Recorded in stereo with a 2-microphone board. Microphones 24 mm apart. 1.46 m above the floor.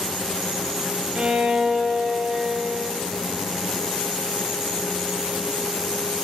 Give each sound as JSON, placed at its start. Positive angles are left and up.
{"t": 1.1, "sound": "a violin", "side_deg": -45, "distance_m": 1.0}